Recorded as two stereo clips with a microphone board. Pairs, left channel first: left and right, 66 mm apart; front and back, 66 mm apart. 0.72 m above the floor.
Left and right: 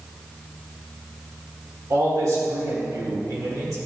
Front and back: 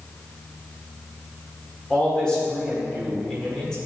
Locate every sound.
1.9 s a man speaking: 75° right, 1.8 m